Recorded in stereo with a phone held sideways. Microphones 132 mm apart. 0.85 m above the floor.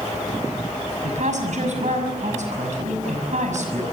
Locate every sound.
1.0 s a woman speaking: 65° right (ahead or behind), 6 m